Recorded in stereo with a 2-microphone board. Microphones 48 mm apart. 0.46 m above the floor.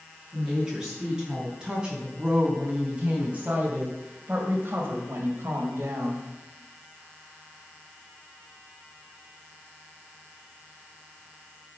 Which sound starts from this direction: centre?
A woman speaking, at 0.3 s.